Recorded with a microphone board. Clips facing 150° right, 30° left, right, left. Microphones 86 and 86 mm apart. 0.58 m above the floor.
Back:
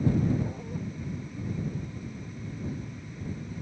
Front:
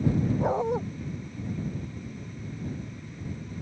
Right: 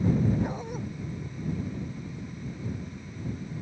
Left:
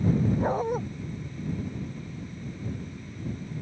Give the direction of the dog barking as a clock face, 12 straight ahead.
11 o'clock.